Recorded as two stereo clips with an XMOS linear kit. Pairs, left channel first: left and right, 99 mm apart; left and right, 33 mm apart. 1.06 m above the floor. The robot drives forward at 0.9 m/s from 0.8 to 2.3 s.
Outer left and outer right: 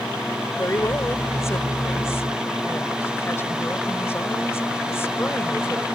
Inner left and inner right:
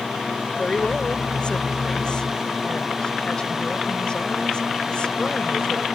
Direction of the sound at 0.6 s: 35° left (ahead or behind).